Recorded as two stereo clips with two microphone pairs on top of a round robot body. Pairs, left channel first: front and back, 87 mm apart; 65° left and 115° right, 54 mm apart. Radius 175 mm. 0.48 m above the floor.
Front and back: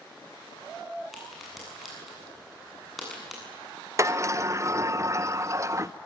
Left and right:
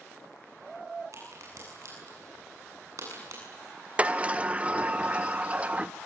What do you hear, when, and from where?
1.1 s a crack: 85° right, 8.5 m
4.0 s a sliding door: straight behind, 1.0 m